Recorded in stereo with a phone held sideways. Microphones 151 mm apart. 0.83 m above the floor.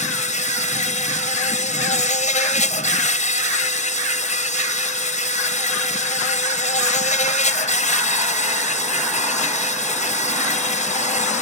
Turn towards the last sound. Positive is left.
turn(degrees=55)  # may be behind; listen again after turning